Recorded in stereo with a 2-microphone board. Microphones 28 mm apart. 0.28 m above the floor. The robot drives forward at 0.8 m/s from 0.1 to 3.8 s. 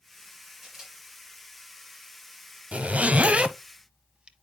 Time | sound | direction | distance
0.6 | a camera shutter | 15° right (ahead or behind) | 5.5 m
2.7 | a zipper | 50° right (ahead or behind) | 0.7 m